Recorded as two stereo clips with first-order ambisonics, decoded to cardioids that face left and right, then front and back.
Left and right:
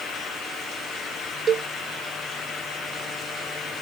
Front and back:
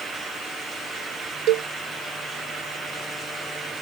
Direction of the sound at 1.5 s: 150° right.